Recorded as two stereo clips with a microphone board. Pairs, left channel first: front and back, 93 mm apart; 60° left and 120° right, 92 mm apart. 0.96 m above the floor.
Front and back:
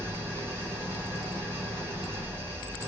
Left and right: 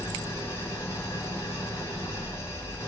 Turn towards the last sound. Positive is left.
turn(degrees=120)